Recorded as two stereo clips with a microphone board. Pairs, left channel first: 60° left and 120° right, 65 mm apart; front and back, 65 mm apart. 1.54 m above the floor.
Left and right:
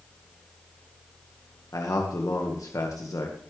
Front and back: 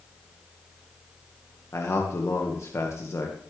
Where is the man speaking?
40° left, 1.7 m.